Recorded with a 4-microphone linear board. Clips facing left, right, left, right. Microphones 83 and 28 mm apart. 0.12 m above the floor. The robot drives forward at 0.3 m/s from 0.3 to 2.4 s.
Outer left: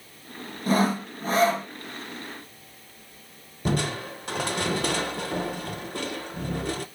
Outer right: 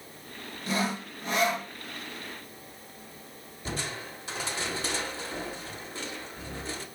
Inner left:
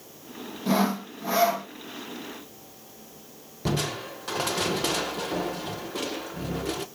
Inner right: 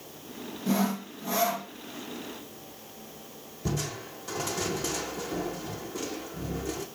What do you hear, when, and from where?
0.7 s sawing: 50° left (ahead or behind), 0.9 m; by 1.7 s 35° left (ahead or behind), 1.1 m
3.6 s crushing: 65° left (ahead or behind), 0.6 m